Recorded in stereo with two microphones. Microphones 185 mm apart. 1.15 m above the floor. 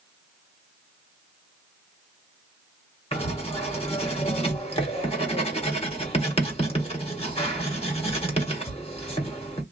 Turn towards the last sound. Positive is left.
turn(degrees=30)  # may be behind; listen again after turning